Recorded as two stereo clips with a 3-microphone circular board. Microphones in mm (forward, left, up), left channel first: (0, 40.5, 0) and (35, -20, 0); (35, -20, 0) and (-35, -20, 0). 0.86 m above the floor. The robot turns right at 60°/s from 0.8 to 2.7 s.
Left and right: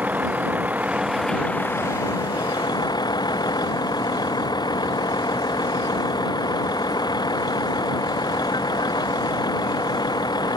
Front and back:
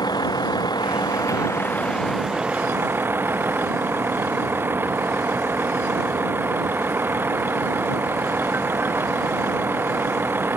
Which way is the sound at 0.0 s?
5° left.